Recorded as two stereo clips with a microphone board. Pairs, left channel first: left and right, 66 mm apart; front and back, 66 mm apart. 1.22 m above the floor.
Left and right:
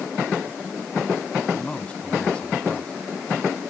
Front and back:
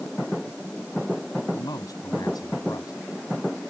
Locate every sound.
1.5 s a man speaking: 15° left